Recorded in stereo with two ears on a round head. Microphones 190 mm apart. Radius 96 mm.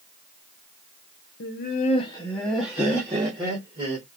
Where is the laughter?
55° left (ahead or behind), 0.7 m; by 4.0 s 25° right (ahead or behind), 1.7 m.